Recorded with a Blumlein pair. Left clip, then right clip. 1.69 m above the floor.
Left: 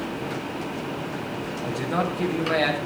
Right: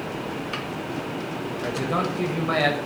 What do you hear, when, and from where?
1.6 s a man speaking: 70° right, 9 m